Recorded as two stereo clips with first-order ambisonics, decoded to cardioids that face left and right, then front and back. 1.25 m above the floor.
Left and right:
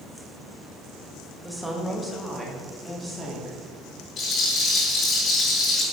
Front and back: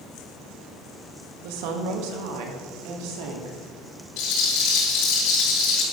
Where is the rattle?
30° left, 6 m.